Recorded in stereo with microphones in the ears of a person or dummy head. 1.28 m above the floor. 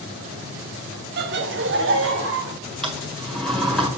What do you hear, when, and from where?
1.2 s laughter: 50° right (ahead or behind), 0.7 m; by 2.5 s 65° right (ahead or behind), 1.3 m
2.8 s a sliding door: 10° left (ahead or behind), 1.5 m